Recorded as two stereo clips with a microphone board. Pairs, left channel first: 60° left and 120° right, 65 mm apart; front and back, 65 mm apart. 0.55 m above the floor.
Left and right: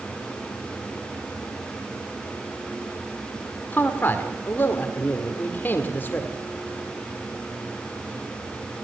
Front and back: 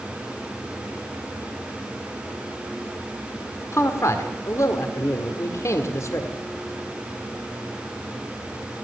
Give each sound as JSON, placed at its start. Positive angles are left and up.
{"t": 3.7, "sound": "a man speaking", "azimuth_deg": 15, "distance_m": 1.8}